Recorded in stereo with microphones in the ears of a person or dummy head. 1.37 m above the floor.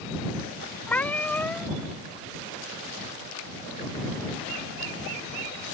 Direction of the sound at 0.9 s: 10° left (ahead or behind).